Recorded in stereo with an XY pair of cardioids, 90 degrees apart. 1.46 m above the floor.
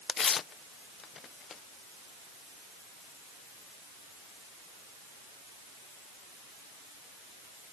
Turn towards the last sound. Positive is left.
turn(degrees=50)